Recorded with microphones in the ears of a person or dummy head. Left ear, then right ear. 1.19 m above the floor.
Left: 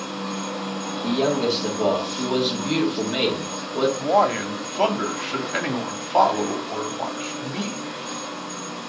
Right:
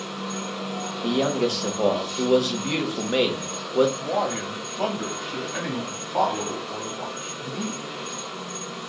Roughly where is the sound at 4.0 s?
Left.